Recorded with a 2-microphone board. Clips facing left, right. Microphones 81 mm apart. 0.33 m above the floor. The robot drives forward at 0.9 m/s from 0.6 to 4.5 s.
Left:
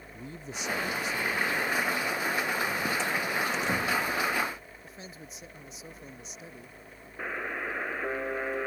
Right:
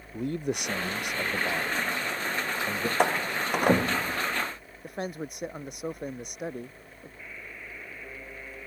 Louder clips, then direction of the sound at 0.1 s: Right 11 dB; 65° right (ahead or behind).